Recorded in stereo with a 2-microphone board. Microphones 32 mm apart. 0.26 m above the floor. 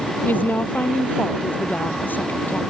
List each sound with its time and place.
0.2 s a woman speaking: 75° left (ahead or behind)